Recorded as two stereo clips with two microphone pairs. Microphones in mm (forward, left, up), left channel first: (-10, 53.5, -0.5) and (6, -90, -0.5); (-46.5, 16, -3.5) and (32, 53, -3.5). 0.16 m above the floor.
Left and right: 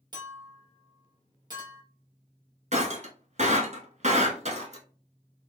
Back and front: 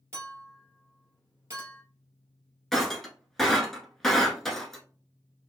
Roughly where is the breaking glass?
Right.